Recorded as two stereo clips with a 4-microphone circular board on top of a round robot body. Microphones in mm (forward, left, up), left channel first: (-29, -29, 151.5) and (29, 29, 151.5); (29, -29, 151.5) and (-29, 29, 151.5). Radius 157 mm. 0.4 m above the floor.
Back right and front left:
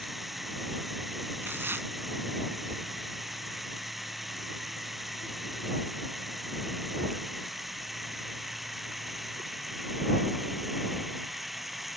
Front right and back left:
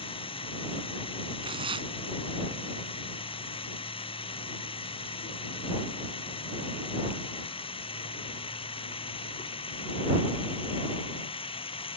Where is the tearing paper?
110° left.